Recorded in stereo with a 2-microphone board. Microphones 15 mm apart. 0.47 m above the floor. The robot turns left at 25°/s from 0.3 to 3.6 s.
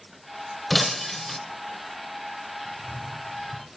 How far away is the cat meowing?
About 1.3 m.